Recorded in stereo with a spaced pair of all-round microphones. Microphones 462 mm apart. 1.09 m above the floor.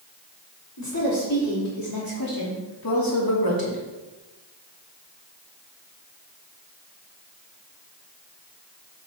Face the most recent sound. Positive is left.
turn(degrees=50)  # may be behind; listen again after turning